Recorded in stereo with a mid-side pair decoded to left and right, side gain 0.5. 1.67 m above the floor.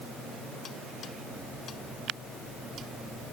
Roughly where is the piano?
No piano in this recording.